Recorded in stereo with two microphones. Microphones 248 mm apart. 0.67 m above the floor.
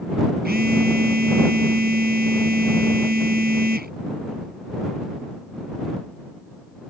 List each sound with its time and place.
0.5 s a phone buzzing: 40° right (ahead or behind)